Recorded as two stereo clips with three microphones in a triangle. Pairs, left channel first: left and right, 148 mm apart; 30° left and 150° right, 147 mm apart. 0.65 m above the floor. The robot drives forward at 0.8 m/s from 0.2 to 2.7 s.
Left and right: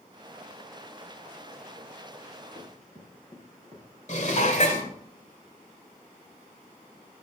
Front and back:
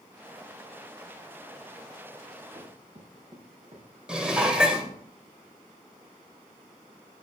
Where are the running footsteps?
150° left, 7 m; by 5.0 s 160° left, 5.5 m.